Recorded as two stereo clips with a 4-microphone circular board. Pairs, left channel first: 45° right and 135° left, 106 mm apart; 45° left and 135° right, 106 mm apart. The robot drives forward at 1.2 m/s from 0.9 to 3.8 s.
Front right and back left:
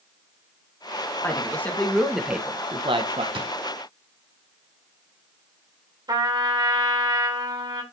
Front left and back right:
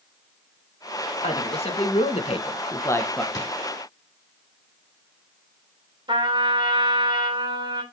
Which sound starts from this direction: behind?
A trumpet, at 6.1 s.